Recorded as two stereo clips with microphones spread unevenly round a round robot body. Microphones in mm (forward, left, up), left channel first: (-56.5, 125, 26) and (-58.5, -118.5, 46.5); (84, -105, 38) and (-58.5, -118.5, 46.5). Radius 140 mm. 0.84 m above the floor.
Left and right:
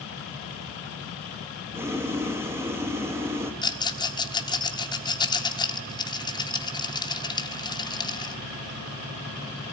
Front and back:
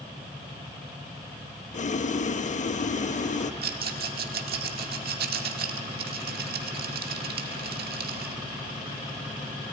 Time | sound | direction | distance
1.7 | boiling | 10° right | 1.1 m
3.6 | a rattle | 160° left | 1.5 m